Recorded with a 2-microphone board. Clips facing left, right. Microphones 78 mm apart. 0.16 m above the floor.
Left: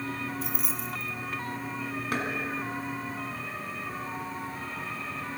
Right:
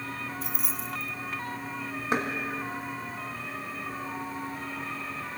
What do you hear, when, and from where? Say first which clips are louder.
0.4 s keys jangling: left 1 dB; centre (ahead or behind), 0.9 m
2.1 s knocking: right 4 dB; 25° right (ahead or behind), 1.5 m